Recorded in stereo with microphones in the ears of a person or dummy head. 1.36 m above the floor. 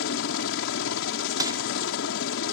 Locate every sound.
0.0 s a helicopter: 65° left (ahead or behind)
1.4 s crushing: 20° right (ahead or behind)